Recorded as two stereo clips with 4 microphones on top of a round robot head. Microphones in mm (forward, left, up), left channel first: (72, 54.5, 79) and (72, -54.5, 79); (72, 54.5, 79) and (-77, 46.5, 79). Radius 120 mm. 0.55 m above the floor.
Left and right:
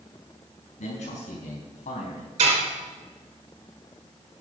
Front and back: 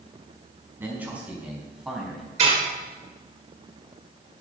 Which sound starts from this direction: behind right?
Dishes clattering, at 2.4 s.